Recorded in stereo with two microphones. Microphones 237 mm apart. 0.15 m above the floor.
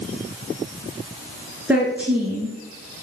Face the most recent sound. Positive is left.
turn(degrees=-5)  # may be behind; listen again after turning